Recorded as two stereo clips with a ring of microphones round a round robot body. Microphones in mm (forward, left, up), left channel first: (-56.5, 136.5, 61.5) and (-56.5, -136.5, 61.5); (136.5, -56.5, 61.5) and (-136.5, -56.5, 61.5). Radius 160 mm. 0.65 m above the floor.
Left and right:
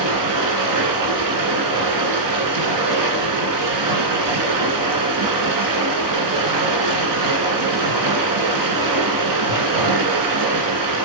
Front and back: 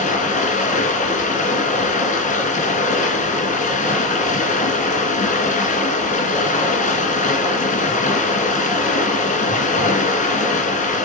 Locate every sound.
0.0 s running water: 65° right, 2.5 m